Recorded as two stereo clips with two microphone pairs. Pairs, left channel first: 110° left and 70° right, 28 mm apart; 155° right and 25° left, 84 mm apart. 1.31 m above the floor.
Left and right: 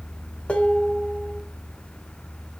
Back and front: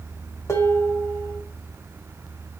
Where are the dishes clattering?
155° left, 2 m.